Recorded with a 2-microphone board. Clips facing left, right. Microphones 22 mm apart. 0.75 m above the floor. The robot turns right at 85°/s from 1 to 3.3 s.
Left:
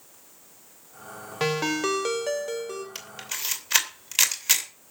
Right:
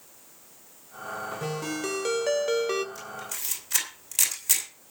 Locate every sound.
1.4 s a ringtone: 120° left, 1.4 m; by 2.9 s 120° right, 1.4 m
3.0 s a camera shutter: 65° left (ahead or behind), 2.5 m; by 4.7 s 40° left (ahead or behind), 2.5 m